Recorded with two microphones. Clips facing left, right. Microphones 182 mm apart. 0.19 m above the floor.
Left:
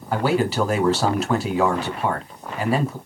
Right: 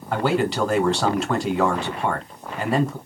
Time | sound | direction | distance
0.1 | a man speaking | 5° left (ahead or behind) | 1.3 m